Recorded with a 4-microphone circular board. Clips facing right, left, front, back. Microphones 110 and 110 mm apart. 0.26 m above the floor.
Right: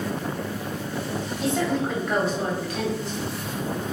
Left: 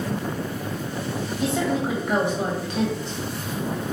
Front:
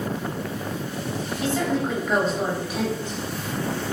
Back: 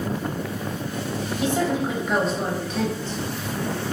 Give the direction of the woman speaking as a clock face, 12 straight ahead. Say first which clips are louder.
Left 1 dB, back 1 dB; 6 o'clock.